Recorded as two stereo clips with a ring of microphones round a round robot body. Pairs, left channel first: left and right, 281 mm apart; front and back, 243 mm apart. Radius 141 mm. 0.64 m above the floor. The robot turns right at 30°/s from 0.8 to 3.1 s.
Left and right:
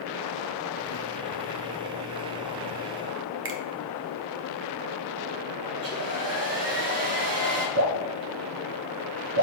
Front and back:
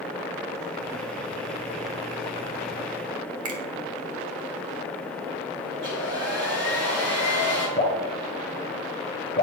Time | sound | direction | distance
3.5 | a finger snap | 140° right | 1.3 m
5.7 | a hair dryer | 130° right | 2.5 m
7.8 | dripping | 70° right | 1.4 m